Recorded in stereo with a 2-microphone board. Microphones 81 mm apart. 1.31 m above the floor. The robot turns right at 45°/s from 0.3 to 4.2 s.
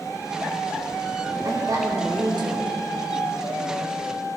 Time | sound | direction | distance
1.4 | a woman speaking | 140° right | 3.5 m